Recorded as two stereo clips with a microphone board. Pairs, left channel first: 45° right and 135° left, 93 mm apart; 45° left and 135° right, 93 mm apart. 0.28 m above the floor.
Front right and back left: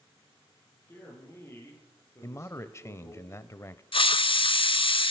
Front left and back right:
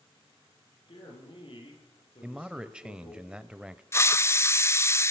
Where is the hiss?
20° right, 0.6 m.